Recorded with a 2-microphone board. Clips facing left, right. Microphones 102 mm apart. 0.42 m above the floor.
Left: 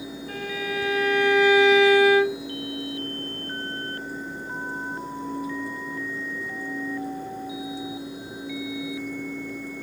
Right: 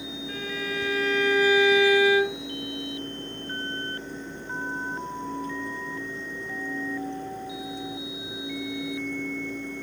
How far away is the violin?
About 1.8 m.